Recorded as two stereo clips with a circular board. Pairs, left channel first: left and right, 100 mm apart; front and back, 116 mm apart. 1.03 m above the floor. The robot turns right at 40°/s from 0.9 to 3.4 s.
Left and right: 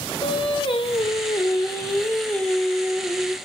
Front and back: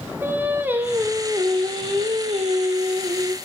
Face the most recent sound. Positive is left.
turn(degrees=-150)